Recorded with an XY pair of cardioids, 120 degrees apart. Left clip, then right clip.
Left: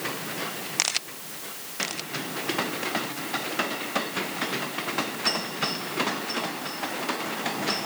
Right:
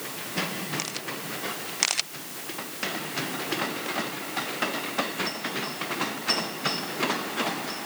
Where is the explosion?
No explosion in this recording.